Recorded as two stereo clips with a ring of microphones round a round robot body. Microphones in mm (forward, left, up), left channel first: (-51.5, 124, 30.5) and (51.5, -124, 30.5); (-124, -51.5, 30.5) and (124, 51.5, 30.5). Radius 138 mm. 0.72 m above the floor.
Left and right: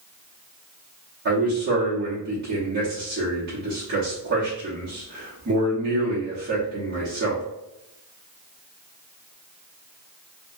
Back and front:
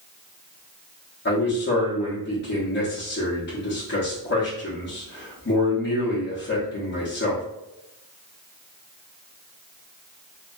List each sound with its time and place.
1.2 s a man speaking: 110° right, 1.0 m